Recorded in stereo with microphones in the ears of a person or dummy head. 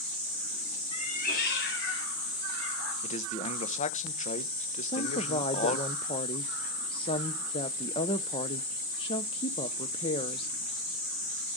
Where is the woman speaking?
25° left (ahead or behind), 0.5 m.